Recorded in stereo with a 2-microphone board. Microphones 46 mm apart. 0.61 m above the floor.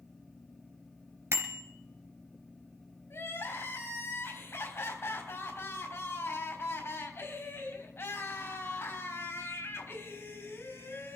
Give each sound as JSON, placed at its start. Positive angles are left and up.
{"t": 1.3, "sound": "a bicycle bell", "side_deg": -80, "distance_m": 2.5}
{"t": 3.1, "sound": "crying", "side_deg": 80, "distance_m": 3.5}